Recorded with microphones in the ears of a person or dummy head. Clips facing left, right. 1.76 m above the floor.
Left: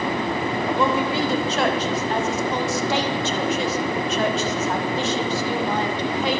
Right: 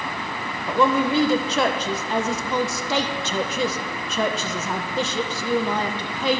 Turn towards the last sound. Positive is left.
turn(degrees=-75)  # may be behind; listen again after turning